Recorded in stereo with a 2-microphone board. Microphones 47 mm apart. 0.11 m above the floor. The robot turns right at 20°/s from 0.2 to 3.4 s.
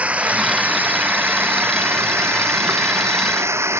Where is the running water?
150° right; by 3.8 s 85° right.